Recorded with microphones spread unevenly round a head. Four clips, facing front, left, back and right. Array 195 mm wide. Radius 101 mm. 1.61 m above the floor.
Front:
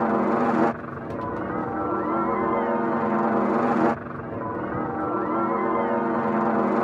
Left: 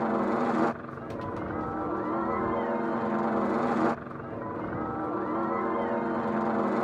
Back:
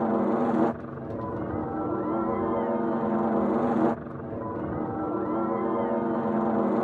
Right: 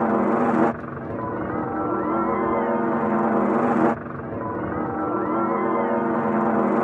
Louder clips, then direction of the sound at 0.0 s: Right 7 dB, front 3 dB; 70° right.